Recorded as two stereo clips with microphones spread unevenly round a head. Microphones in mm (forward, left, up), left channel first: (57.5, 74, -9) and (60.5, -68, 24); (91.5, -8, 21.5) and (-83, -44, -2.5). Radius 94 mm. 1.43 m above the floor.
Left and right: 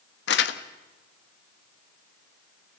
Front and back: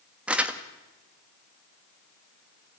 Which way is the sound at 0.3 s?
105° left.